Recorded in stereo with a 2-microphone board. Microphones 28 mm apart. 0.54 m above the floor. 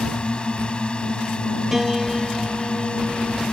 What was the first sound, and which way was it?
A drone, 30° left (ahead or behind).